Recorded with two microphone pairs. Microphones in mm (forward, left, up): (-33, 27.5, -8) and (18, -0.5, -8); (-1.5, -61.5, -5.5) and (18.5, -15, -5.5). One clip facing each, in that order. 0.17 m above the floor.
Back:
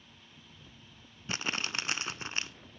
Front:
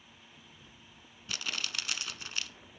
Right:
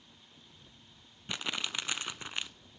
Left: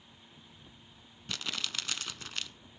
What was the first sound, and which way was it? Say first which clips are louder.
Crumpling: back 4 dB, right 2 dB; 170° right.